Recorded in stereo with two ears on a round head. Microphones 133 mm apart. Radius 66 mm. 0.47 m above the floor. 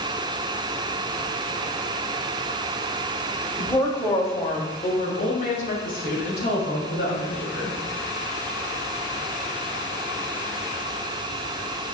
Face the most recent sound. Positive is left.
turn(degrees=75)  # may be behind; listen again after turning